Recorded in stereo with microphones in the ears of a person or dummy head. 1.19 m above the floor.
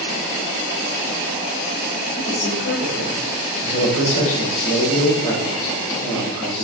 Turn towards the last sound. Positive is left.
turn(degrees=40)  # may be behind; listen again after turning